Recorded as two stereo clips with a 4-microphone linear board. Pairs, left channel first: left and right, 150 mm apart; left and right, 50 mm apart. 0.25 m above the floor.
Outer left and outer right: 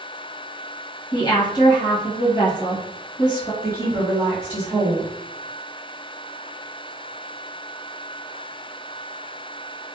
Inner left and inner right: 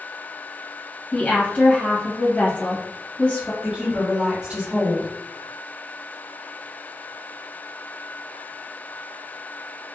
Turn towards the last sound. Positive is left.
turn(degrees=-15)  # may be behind; listen again after turning